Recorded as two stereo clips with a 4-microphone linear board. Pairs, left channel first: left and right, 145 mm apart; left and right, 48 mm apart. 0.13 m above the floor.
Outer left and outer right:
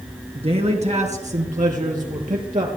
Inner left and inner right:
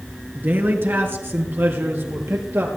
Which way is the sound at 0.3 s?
45° right (ahead or behind).